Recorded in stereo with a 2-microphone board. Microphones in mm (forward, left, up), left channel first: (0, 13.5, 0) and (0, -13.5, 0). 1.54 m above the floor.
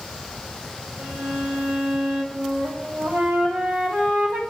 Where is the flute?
85° right, 9 m.